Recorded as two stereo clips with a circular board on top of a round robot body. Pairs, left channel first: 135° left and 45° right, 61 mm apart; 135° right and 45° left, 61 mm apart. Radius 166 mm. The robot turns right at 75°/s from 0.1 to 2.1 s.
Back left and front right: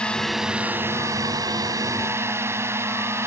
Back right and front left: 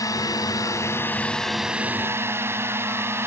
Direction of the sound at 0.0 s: 150° right.